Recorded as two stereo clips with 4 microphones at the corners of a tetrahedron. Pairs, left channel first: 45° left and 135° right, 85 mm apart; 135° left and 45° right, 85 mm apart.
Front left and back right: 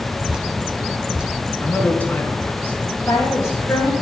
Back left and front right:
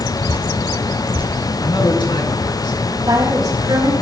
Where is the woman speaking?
10° right, 8.5 m.